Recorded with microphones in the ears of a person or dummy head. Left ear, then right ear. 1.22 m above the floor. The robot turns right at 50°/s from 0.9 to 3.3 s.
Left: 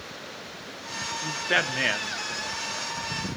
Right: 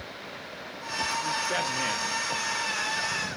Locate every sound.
1.2 s a man speaking: 35° left (ahead or behind), 0.6 m; by 2.9 s 10° left (ahead or behind), 0.6 m